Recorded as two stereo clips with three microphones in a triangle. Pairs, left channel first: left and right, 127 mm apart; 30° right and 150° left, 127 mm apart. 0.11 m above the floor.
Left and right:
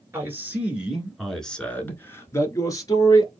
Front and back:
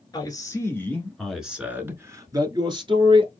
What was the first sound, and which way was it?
A man speaking, 40° right.